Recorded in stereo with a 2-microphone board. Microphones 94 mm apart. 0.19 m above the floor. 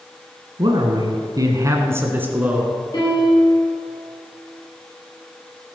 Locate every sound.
0.6 s a man speaking: 55° right (ahead or behind), 1.7 m; by 2.8 s 10° right (ahead or behind), 2.5 m
2.9 s a piano: 45° left (ahead or behind), 5.5 m